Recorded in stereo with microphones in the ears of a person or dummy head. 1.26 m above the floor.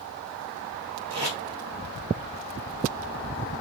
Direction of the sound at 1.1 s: 20° right (ahead or behind).